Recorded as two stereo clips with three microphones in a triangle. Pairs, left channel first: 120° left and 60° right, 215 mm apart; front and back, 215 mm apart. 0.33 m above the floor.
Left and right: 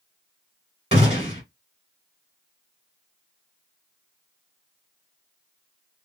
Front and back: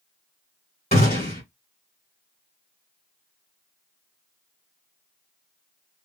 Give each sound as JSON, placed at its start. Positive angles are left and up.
{"t": 0.9, "sound": "a gunshot", "azimuth_deg": -20, "distance_m": 1.8}